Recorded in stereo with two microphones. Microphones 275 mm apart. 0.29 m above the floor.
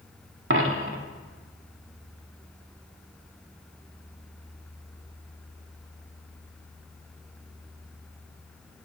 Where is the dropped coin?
45° right (ahead or behind), 0.6 m.